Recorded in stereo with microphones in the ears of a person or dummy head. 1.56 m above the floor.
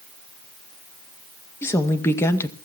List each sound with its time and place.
1.6 s a woman speaking: 20° left (ahead or behind), 1.9 m